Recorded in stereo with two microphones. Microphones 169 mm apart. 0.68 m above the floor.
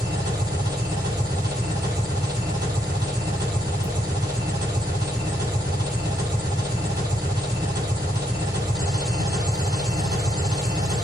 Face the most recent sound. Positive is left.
turn(degrees=-20)  # may be behind; listen again after turning